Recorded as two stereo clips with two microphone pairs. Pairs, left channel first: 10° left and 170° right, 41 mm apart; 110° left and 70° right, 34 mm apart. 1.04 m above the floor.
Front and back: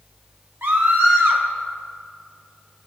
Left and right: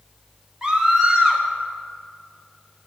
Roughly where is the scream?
Behind right.